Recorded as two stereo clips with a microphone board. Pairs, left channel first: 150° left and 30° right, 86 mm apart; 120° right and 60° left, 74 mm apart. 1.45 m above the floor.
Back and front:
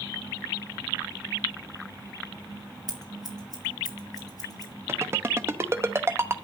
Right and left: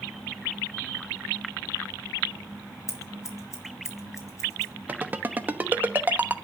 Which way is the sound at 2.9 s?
170° right.